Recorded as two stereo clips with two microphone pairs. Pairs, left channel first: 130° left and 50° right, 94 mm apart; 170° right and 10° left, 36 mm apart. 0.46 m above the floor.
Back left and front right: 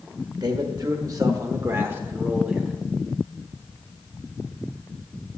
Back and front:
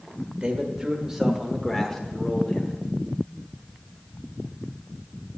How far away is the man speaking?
About 1.3 m.